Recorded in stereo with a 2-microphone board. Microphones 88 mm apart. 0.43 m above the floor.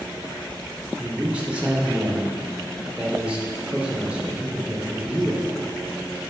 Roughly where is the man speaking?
Centre.